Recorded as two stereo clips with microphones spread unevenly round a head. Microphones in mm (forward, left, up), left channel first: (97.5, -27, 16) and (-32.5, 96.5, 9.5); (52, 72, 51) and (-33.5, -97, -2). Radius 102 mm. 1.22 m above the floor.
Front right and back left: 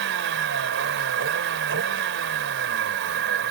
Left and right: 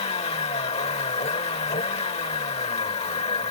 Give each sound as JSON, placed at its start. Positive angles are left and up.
{"t": 0.0, "sound": "a vehicle", "azimuth_deg": 125}